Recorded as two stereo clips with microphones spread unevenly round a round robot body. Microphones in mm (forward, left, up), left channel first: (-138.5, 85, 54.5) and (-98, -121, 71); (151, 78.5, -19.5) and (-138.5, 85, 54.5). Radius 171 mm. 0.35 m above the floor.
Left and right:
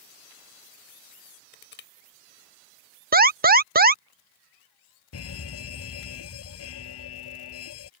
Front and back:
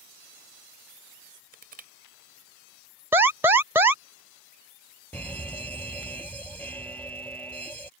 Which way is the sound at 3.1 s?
80° right.